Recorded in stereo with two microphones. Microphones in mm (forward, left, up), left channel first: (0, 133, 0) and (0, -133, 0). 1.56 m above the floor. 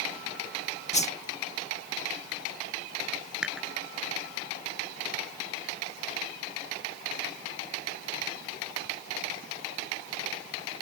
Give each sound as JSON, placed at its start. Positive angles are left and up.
{"t": 0.9, "sound": "a whoosh", "side_deg": 25}
{"t": 3.4, "sound": "dishes clattering", "side_deg": -5}